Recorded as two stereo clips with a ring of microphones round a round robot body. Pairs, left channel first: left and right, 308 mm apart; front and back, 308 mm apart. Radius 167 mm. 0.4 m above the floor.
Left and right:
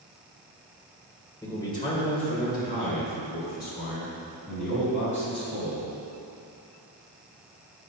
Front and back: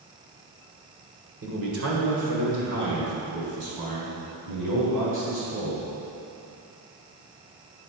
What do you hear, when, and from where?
1.4 s a man speaking: 165° left, 1.7 m; by 5.9 s 150° left, 5.5 m